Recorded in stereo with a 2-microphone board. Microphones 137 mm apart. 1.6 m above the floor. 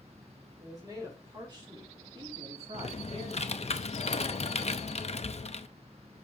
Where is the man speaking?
25° right (ahead or behind), 3.5 m; by 3.7 s 55° right (ahead or behind), 2 m.